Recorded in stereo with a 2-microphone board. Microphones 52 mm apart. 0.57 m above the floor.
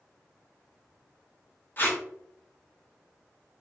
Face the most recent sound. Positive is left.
turn(degrees=40)  # may be behind; listen again after turning